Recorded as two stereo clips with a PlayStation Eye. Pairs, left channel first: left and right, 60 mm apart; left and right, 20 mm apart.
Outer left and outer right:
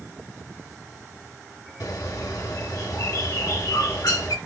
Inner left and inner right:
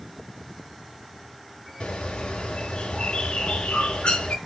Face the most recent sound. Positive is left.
turn(degrees=80)